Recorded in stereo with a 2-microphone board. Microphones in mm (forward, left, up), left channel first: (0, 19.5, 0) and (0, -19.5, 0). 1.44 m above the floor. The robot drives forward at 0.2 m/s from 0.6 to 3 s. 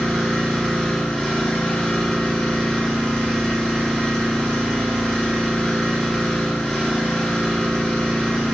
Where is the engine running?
20° left (ahead or behind), 0.7 m.